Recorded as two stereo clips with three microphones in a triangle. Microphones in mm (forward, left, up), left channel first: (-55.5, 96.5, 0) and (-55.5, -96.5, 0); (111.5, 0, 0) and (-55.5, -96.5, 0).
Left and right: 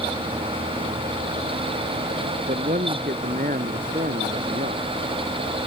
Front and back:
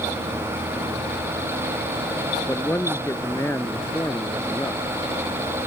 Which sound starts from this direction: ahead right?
A man speaking, at 2.5 s.